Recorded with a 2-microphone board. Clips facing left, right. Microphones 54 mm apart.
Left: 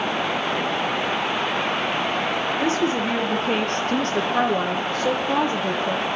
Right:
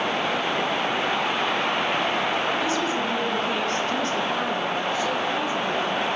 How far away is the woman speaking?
About 2.5 m.